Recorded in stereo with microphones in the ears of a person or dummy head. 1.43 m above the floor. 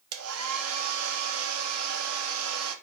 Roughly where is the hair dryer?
Right.